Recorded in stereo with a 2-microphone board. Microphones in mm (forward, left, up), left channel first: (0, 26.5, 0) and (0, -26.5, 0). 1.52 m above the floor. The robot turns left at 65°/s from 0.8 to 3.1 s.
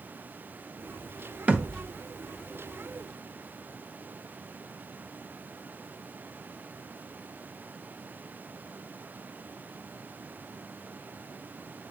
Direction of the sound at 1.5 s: 30° right (ahead or behind).